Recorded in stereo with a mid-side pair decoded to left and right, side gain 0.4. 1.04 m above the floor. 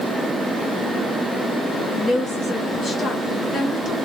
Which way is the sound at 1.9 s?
45° left.